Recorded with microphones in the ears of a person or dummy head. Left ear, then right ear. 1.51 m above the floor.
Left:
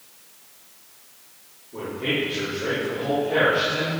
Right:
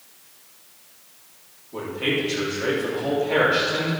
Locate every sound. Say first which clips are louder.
1.7 s a man speaking: right 1 dB; 90° right, 3.5 m; by 3.9 s 50° right (ahead or behind), 3 m